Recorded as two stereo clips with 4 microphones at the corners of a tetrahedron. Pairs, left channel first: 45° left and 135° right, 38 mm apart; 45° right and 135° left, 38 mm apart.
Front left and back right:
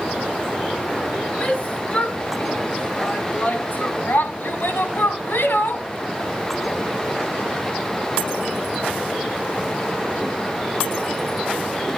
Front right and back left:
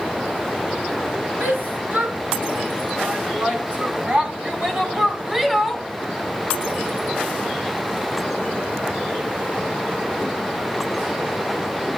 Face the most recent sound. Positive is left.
turn(degrees=50)